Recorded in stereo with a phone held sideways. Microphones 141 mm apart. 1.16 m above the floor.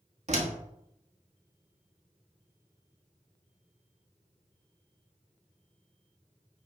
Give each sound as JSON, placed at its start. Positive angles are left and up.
{"t": 0.3, "sound": "a door slam", "side_deg": -55, "distance_m": 1.6}